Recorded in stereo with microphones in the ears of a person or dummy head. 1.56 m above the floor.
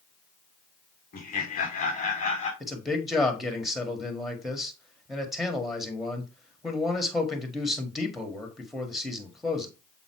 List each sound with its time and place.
1.1 s laughter: 55° left (ahead or behind), 1.8 m; by 2.5 s 45° left (ahead or behind), 2.5 m
2.6 s a man speaking: 5° right (ahead or behind), 1.4 m